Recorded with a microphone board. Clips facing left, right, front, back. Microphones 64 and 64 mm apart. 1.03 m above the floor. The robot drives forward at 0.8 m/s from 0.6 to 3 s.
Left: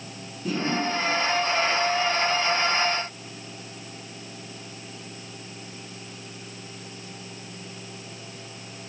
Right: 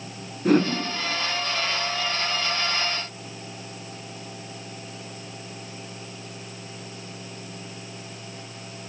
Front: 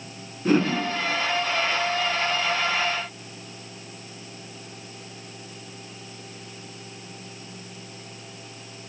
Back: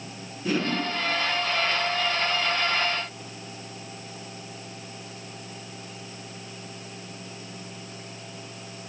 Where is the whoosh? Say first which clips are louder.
Right 8 dB, front 6 dB; 55° right, 6 m.